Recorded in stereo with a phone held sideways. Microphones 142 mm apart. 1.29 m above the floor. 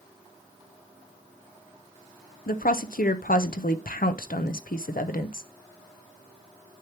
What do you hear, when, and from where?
2.5 s a woman speaking: 80° left, 0.7 m